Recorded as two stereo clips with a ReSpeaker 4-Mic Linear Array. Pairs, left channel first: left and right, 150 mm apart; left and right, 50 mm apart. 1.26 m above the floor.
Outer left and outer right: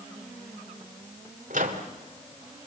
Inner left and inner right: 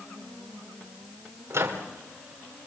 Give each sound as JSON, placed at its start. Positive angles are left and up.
{"t": 1.5, "sound": "a microwave", "side_deg": -65, "distance_m": 2.5}